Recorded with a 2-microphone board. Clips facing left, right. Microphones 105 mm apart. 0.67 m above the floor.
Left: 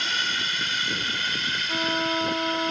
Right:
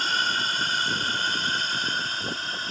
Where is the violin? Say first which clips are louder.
Left 5 dB; 65° left (ahead or behind).